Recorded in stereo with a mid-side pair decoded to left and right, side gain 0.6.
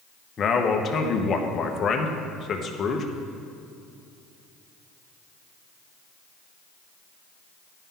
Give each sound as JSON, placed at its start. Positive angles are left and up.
{"t": 0.4, "sound": "a man speaking", "azimuth_deg": 40, "distance_m": 1.0}